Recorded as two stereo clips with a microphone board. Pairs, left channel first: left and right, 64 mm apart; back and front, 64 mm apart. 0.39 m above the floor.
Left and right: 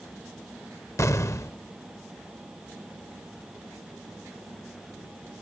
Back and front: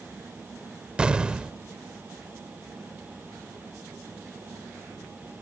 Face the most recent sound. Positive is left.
turn(degrees=70)